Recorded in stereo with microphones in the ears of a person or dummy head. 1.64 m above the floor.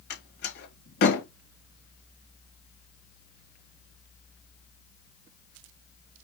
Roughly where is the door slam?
Left.